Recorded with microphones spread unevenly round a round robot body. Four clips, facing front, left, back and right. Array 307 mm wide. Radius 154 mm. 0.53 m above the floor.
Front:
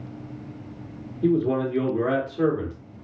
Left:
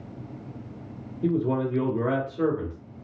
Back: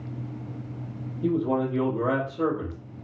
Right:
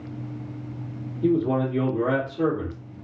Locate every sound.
1.2 s a man speaking: 10° right, 1.4 m